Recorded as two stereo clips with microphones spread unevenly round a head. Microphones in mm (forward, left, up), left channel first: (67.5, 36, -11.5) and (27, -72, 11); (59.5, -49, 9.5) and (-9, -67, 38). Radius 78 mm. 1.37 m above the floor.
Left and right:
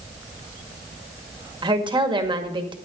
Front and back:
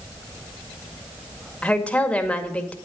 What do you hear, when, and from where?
1.6 s a woman speaking: 60° right, 1.9 m